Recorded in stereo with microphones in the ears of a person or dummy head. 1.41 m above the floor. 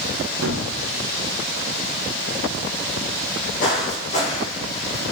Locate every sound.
0.4 s a gunshot: 70° right (ahead or behind), 0.8 m
3.2 s footsteps: 55° left (ahead or behind), 3.5 m; by 5.0 s 40° left (ahead or behind), 3.5 m